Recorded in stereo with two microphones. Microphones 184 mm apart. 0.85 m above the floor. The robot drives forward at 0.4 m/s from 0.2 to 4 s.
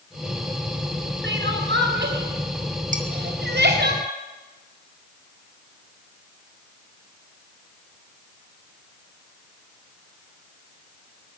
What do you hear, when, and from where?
1.2 s crying: 80° right, 4.5 m; by 3.9 s 70° right (ahead or behind), 5 m
2.9 s dishes clattering: 45° right (ahead or behind), 3 m